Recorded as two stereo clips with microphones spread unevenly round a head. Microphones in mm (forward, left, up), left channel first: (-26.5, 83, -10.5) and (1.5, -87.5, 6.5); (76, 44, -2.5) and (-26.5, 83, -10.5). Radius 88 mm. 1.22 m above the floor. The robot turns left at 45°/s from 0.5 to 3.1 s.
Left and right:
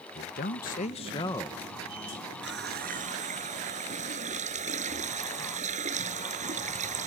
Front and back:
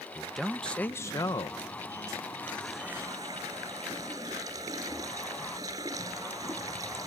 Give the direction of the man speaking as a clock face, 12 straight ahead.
10 o'clock.